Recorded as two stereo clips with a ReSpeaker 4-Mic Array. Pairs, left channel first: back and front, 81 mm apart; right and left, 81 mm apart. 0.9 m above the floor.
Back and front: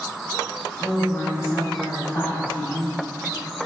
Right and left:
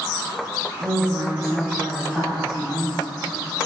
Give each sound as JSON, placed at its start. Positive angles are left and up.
{"t": 0.8, "sound": "a woman speaking", "azimuth_deg": 125, "distance_m": 1.5}